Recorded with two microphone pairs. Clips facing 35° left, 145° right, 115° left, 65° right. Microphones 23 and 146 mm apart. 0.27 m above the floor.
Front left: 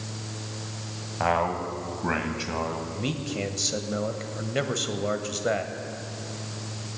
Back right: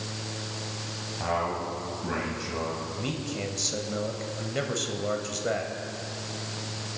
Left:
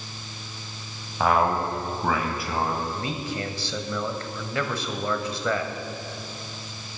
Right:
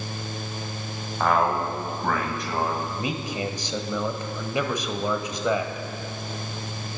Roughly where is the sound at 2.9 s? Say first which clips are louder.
Front left 2 dB, right 1 dB; ahead.